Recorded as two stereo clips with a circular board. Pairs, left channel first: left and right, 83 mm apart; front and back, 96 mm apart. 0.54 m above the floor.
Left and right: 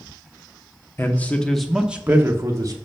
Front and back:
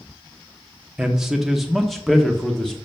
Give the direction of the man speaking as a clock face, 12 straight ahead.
8 o'clock.